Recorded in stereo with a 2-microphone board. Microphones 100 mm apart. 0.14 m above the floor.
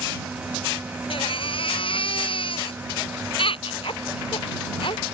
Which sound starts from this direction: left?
A baby crying, at 1.1 s.